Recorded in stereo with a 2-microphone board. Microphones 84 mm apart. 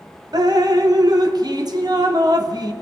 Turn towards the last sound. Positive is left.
turn(degrees=-55)  # may be behind; listen again after turning